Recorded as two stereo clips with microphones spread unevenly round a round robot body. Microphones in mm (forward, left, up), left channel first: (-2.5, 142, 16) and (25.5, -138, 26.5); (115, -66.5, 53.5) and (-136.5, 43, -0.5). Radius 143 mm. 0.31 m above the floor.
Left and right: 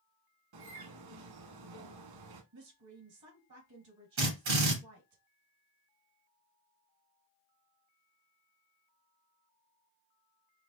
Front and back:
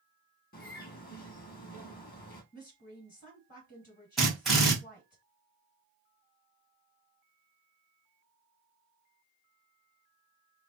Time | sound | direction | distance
0.5 | a bird | 85° right | 0.9 m
2.5 | a woman speaking | 85° right | 3 m
4.2 | a drill | 120° right | 2 m